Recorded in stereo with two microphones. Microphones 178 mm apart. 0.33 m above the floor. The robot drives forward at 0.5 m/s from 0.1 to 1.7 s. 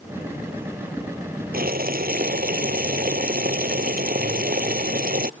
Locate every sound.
1.5 s boiling: 55° right (ahead or behind)